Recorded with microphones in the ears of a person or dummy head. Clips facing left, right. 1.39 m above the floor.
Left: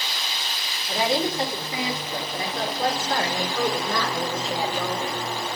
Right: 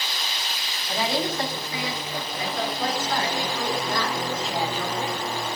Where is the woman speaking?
10° left (ahead or behind), 4 m; by 5.3 s 55° left (ahead or behind), 6.5 m.